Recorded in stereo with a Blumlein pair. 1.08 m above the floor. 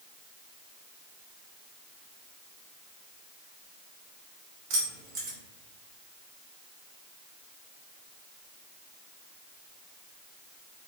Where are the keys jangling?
50° right, 3 m.